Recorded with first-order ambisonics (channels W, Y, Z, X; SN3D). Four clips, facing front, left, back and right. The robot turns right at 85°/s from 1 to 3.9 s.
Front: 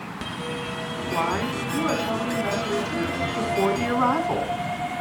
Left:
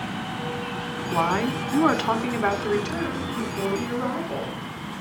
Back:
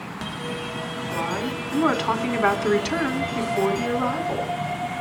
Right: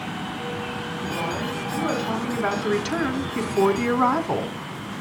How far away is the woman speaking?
About 1.8 m.